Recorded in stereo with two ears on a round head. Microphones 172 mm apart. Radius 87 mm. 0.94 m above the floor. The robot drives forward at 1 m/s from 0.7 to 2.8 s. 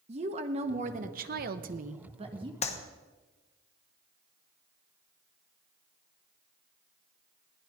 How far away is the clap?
About 1.1 m.